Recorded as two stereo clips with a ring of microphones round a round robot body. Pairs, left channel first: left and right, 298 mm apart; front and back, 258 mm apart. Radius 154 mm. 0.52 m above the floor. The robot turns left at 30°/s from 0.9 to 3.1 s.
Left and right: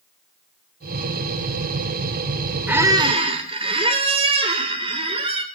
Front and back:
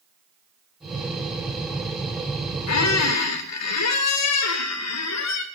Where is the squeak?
5° right, 1.1 m; by 5.4 s 20° right, 1.1 m.